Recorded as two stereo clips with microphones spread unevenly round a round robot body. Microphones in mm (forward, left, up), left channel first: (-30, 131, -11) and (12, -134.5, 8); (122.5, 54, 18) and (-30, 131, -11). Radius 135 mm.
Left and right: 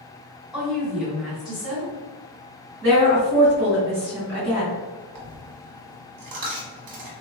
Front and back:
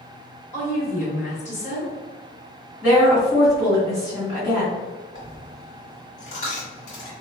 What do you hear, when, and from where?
0.5 s a woman speaking: 10° left, 1.5 m
2.8 s a woman speaking: 55° right, 1.8 m
5.2 s a dropped coin: 60° right, 1.2 m